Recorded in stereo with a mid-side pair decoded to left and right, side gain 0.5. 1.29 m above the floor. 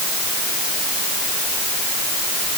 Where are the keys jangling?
I don't hear keys jangling.